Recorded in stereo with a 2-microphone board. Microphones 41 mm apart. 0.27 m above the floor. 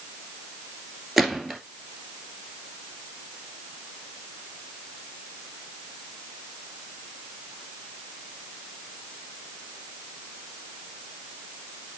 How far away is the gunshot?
About 1.7 m.